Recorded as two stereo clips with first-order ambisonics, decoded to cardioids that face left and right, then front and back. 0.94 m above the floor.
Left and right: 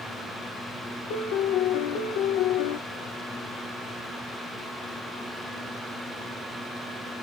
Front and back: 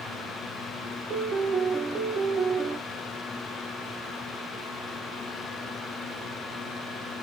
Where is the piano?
95° left, 2.5 m.